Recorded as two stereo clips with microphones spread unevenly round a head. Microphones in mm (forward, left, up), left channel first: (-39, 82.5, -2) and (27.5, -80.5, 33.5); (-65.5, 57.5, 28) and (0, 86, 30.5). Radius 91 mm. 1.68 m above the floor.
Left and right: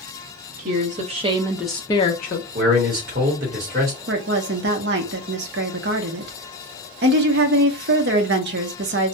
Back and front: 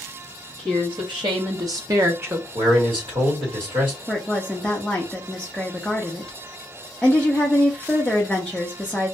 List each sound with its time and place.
0.6 s a woman speaking: 30° right, 1.2 m; by 2.5 s 80° left, 0.7 m
2.5 s a man speaking: 25° right, 1.4 m
4.1 s a woman speaking: 70° right, 0.6 m